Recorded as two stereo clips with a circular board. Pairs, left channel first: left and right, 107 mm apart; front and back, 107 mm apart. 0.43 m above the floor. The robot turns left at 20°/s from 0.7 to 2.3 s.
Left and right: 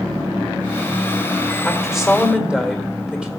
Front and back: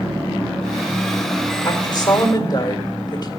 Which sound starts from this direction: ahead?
A woman speaking, at 1.6 s.